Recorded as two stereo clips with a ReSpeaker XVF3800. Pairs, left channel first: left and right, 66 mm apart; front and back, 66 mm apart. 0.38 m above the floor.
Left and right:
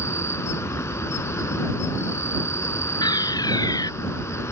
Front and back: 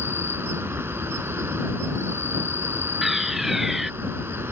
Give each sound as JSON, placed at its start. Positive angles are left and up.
{"t": 0.0, "sound": "an insect", "azimuth_deg": 130}
{"t": 3.0, "sound": "a fire alarm", "azimuth_deg": 95}